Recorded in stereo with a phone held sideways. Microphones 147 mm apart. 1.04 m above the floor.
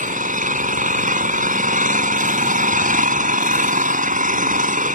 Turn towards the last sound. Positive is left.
turn(degrees=-60)  # may be behind; listen again after turning